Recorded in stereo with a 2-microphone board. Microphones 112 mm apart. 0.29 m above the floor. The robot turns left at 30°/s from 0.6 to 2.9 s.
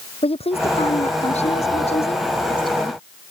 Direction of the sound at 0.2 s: 110° left.